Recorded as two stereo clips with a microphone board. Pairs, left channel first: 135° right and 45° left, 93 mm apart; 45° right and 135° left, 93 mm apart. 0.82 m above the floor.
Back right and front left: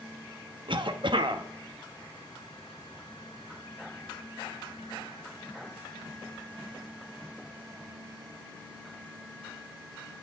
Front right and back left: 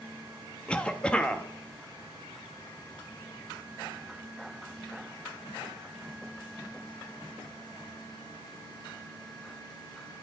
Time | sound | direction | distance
0.7 | a cough | 35° left | 1.2 m